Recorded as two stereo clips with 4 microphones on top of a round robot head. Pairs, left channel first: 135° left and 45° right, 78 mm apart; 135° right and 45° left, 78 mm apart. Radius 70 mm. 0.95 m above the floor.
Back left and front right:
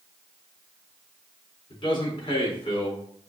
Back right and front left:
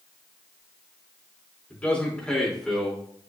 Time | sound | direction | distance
1.7 | a man speaking | 150° left | 4 m